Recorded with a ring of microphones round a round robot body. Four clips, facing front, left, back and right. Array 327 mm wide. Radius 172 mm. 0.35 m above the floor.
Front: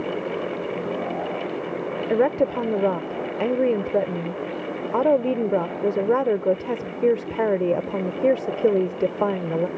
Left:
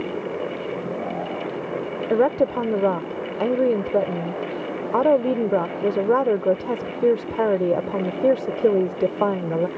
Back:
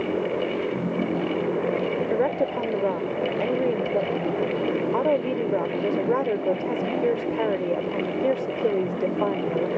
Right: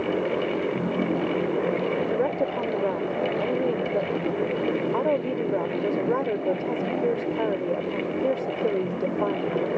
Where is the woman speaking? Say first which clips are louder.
Left 5 dB, front 6 dB; 60° left.